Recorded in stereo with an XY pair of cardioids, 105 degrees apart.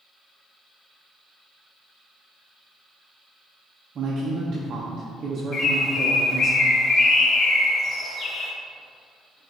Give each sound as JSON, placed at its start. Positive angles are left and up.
{"t": 4.0, "sound": "a man speaking", "azimuth_deg": -50, "distance_m": 0.8}
{"t": 5.5, "sound": "a bird", "azimuth_deg": 55, "distance_m": 0.8}